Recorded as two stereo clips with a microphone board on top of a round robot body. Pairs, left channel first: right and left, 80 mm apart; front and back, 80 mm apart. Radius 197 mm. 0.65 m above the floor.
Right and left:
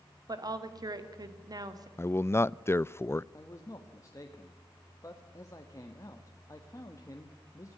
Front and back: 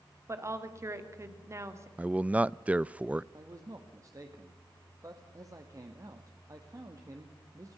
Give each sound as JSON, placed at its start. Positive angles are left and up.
{"t": 0.3, "sound": "a woman speaking", "azimuth_deg": 125, "distance_m": 2.5}
{"t": 2.0, "sound": "a man speaking", "azimuth_deg": -120, "distance_m": 0.6}
{"t": 3.3, "sound": "a man speaking", "azimuth_deg": -135, "distance_m": 1.9}